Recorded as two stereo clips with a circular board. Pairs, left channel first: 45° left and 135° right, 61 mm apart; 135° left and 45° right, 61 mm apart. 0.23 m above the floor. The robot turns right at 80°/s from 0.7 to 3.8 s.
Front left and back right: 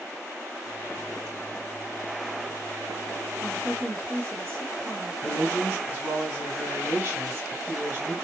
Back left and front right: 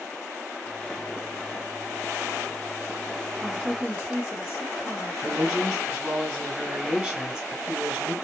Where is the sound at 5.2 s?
115° right, 1.2 m.